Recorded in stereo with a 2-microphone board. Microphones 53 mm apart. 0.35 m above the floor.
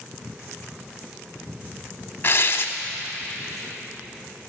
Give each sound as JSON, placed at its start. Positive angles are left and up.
{"t": 2.2, "sound": "tearing paper", "side_deg": 45, "distance_m": 0.7}